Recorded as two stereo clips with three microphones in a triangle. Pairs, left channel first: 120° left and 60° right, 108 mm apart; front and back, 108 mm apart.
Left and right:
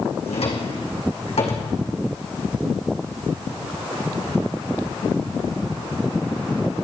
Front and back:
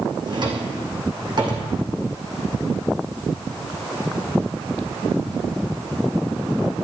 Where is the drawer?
135° left, 2.5 m.